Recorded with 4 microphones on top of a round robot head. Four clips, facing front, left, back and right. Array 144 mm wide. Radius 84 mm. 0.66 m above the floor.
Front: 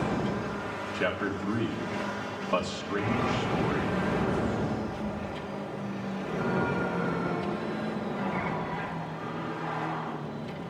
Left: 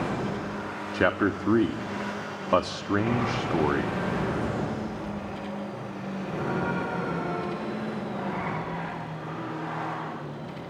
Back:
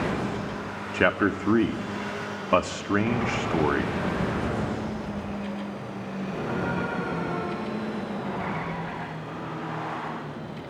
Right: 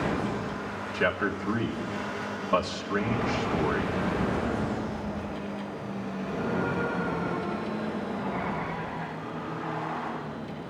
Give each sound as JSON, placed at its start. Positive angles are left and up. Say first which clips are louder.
{"t": 0.9, "sound": "a man speaking", "louder": "left 4 dB, back 8 dB", "azimuth_deg": 140, "distance_m": 1.4}